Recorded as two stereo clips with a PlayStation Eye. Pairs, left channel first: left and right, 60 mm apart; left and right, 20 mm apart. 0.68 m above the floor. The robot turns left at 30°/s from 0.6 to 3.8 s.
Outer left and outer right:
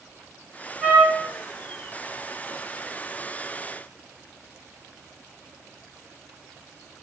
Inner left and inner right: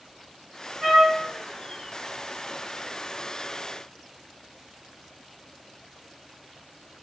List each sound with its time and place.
0.8 s a trumpet: 10° right (ahead or behind), 2 m; by 1.3 s 20° right (ahead or behind), 2 m